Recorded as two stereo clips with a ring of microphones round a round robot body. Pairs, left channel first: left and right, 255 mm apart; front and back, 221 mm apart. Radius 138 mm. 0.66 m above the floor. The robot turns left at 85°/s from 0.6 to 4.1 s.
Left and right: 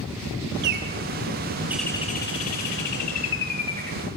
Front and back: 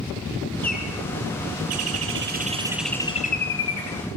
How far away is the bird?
About 3.5 m.